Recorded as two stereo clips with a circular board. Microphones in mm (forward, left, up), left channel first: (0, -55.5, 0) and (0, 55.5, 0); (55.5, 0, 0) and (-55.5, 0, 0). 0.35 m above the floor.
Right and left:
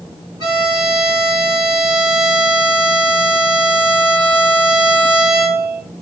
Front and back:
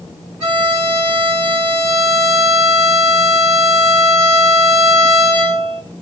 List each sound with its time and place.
0.4 s a violin: 130° left, 1.6 m